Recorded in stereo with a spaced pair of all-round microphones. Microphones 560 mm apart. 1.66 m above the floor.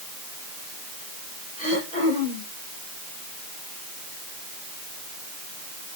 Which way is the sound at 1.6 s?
10° left (ahead or behind).